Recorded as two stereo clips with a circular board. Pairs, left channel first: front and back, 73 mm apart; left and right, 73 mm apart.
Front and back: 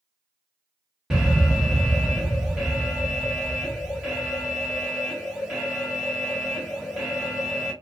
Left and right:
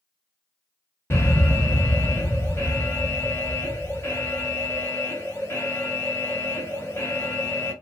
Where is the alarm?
110° left, 1.3 m.